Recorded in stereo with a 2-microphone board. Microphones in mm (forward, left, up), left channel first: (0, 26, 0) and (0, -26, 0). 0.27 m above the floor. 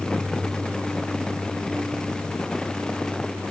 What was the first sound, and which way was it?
Only background noise.